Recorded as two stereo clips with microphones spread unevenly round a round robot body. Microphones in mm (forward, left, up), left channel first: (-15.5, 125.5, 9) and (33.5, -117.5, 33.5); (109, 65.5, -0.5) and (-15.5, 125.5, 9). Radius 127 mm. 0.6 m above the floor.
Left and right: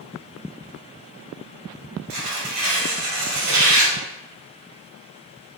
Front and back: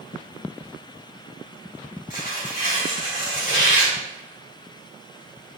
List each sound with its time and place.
2.1 s tearing paper: 65° right, 1.7 m